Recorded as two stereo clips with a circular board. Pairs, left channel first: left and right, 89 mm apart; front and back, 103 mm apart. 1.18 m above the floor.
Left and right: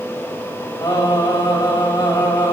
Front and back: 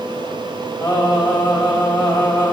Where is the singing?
55° left, 1.8 m.